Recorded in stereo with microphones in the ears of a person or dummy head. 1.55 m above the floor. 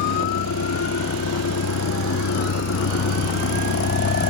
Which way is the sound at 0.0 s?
80° left.